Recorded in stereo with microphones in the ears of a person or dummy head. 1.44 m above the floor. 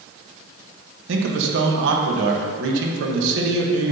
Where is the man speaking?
75° right (ahead or behind), 1.3 m.